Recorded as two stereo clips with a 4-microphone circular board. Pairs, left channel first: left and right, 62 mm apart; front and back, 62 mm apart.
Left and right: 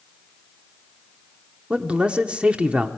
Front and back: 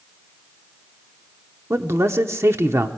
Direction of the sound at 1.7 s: 155° right.